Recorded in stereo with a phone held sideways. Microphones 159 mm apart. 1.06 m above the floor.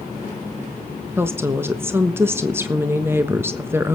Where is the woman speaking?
15° right (ahead or behind), 1.1 m.